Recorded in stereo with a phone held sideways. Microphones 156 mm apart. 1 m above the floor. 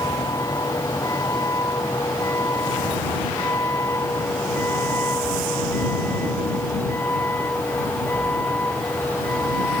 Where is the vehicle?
25° left (ahead or behind); by 9.8 s 10° left (ahead or behind).